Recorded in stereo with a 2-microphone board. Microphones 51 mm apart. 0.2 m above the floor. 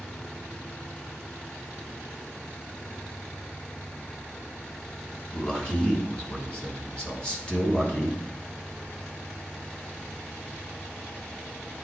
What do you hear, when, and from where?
5.3 s a man speaking: 20° left (ahead or behind), 1.7 m